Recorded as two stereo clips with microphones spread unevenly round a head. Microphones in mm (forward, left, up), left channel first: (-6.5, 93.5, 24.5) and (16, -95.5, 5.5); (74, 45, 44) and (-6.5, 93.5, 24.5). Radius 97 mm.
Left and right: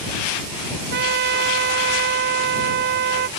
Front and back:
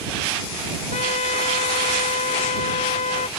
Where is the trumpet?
40° right.